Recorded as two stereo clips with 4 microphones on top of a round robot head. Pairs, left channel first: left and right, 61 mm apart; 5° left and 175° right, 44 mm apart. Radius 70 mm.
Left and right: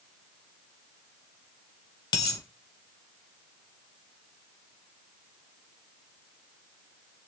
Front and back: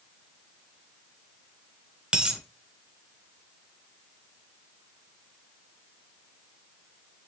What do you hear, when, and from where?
2.1 s a dropped coin: 110° left, 1.1 m